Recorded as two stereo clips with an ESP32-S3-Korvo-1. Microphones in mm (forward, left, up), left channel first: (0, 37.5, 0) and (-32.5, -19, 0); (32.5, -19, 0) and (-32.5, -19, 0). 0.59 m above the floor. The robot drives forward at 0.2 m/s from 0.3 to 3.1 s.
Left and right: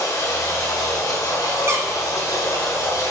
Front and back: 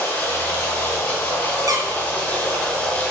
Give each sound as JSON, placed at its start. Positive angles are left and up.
{"t": 0.0, "sound": "running water", "azimuth_deg": 55, "distance_m": 2.5}
{"t": 1.7, "sound": "a squeak", "azimuth_deg": -165, "distance_m": 1.1}